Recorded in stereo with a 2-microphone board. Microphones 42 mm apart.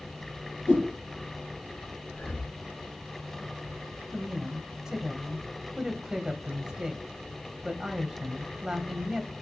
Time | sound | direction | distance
0.7 | a whoosh | 60° left (ahead or behind) | 5.5 m
2.1 | breathing | 35° left (ahead or behind) | 3.5 m
4.1 | a woman speaking | 15° right (ahead or behind) | 1.0 m